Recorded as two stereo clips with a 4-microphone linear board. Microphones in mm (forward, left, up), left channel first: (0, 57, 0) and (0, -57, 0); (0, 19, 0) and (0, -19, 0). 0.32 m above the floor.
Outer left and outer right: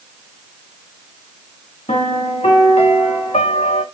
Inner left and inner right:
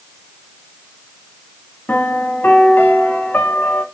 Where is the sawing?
I don't hear sawing.